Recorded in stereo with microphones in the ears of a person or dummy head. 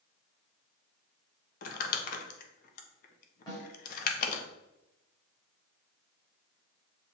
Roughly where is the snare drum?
Left.